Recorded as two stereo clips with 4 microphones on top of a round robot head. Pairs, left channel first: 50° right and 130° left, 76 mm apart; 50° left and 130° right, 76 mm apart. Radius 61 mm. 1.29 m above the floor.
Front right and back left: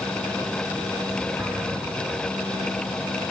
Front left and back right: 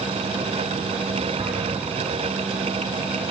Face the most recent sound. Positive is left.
turn(degrees=-170)